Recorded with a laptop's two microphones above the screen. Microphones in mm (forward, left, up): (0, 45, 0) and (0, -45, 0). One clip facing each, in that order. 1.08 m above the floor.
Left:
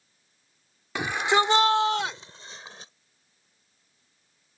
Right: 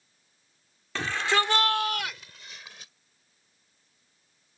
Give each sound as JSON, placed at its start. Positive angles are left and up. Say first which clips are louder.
{"t": 0.9, "sound": "a shout", "louder": "left 3 dB", "side_deg": 15}